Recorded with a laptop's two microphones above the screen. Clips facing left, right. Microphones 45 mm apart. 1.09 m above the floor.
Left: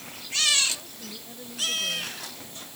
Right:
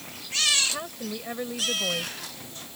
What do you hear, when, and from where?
0.7 s a woman speaking: 80° right